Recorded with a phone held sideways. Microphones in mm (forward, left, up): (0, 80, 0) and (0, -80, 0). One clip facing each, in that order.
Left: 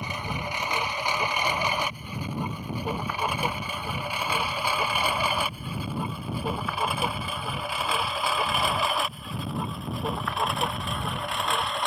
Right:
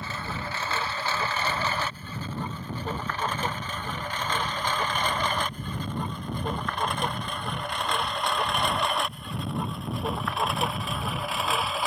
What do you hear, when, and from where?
0.0 s a lawn mower: 15° left (ahead or behind); by 11.9 s 5° right (ahead or behind)